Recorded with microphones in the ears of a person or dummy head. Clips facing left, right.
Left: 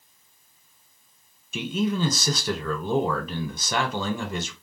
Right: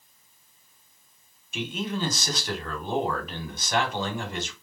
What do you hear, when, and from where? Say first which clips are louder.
1.5 s a man speaking: left 5 dB; 75° left (ahead or behind), 1.3 m